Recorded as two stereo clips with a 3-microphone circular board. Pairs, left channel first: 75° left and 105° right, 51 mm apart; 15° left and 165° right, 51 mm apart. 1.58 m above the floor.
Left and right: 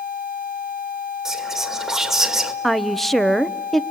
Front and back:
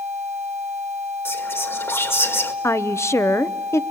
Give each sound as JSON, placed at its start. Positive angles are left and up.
{"t": 1.2, "sound": "whispering", "azimuth_deg": -20, "distance_m": 2.0}
{"t": 2.6, "sound": "a woman speaking", "azimuth_deg": -10, "distance_m": 0.8}